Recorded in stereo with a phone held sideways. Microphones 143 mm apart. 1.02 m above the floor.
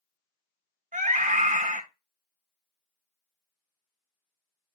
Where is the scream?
65° right (ahead or behind), 1.2 m.